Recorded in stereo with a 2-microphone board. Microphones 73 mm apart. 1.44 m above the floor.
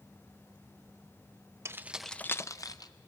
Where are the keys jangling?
40° right (ahead or behind), 0.6 m; by 2.9 s 60° left (ahead or behind), 1.0 m.